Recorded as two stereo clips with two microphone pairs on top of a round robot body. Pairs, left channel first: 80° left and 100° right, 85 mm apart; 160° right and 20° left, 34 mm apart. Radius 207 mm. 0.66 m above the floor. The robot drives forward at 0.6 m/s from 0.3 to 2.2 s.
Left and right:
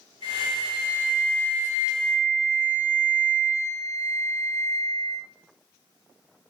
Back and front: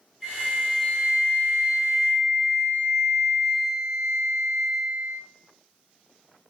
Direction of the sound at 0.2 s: 105° left.